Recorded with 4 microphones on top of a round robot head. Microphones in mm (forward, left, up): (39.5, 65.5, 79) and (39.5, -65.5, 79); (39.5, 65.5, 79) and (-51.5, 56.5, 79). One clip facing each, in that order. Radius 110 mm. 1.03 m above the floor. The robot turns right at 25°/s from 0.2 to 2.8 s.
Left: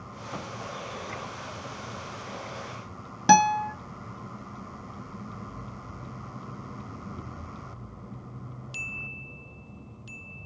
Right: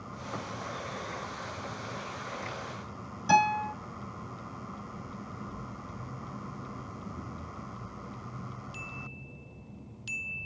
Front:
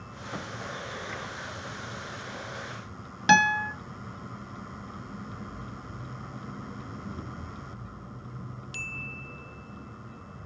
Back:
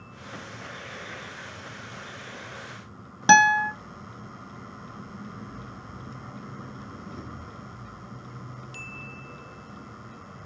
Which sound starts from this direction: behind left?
A guitar, at 3.3 s.